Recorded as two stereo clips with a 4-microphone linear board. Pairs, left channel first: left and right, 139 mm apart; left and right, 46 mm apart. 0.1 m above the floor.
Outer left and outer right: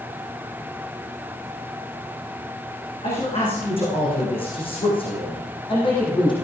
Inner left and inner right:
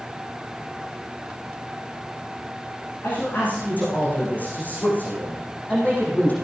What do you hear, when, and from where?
3.0 s a man speaking: 40° left (ahead or behind), 8.5 m; by 6.3 s 35° left (ahead or behind), 5 m